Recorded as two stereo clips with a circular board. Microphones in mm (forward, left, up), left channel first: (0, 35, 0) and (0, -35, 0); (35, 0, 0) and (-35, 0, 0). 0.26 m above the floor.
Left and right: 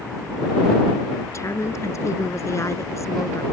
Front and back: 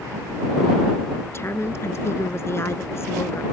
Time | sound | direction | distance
1.3 | a woman speaking | 50° left | ?